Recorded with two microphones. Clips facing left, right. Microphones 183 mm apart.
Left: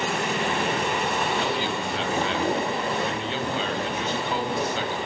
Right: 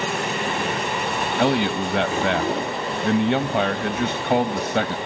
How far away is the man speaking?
About 2 m.